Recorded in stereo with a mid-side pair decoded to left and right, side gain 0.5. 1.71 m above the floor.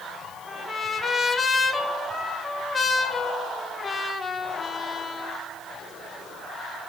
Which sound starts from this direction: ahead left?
A trumpet, at 0.5 s.